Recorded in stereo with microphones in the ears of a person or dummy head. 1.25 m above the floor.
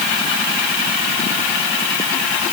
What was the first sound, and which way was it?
Only background noise.